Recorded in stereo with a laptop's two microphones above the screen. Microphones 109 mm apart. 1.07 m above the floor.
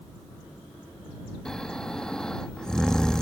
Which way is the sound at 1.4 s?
5° left (ahead or behind).